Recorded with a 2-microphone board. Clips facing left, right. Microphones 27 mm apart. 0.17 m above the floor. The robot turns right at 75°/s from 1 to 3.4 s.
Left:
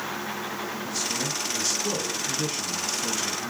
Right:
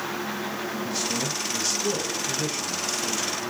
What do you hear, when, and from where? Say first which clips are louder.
0.8 s a man speaking: right 1 dB; 30° right (ahead or behind), 1.4 m; by 3.5 s 30° left (ahead or behind), 1.4 m